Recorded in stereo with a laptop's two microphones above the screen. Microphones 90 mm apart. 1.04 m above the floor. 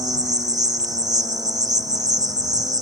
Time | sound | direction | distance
0.0 | an insect | 50° right (ahead or behind) | ?